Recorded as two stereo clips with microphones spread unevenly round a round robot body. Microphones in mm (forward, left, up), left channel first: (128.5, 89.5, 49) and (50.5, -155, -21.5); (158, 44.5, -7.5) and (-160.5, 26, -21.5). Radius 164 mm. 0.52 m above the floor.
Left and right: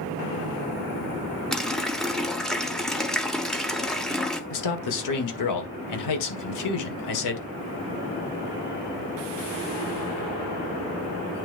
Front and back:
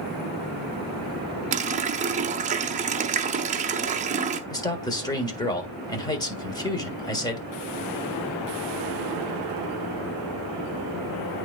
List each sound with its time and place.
1.5 s a running tap: 165° right, 0.6 m
4.5 s a man speaking: 80° left, 1.8 m